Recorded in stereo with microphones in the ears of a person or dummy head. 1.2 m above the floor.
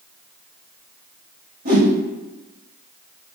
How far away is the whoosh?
About 1.2 m.